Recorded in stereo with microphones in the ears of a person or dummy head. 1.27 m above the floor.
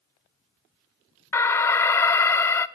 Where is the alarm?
5° left (ahead or behind), 0.8 m.